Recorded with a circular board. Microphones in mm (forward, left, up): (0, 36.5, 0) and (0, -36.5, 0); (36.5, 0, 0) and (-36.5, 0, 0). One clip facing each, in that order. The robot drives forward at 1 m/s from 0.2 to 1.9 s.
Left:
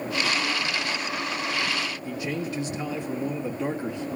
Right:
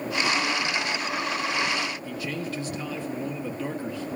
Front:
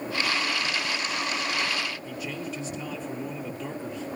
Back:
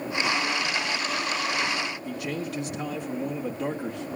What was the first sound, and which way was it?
A man speaking, 160° left.